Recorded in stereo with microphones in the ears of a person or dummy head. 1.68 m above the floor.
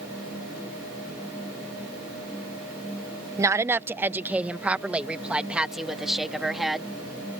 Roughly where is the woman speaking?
Centre.